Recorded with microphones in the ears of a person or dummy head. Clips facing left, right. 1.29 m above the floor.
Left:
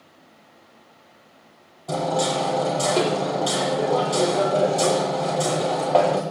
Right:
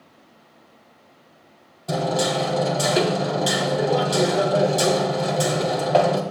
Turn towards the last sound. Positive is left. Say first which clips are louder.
# right 1 dB
turn(degrees=-10)  # may be behind; listen again after turning